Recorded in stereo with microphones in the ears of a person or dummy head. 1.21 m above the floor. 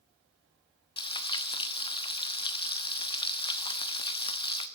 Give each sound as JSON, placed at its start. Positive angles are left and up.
{"t": 1.0, "sound": "frying", "side_deg": 25, "distance_m": 1.2}